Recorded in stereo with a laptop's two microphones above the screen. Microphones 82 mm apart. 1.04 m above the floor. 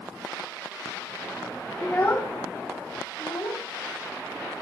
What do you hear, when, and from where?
1.8 s a child speaking: 15° left (ahead or behind), 1.2 m; by 4.6 s 65° left (ahead or behind), 3.5 m